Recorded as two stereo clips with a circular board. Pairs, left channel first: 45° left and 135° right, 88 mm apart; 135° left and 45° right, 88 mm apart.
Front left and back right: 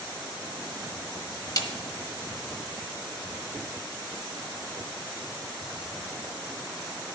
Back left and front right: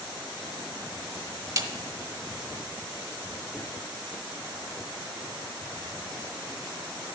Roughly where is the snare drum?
Ahead.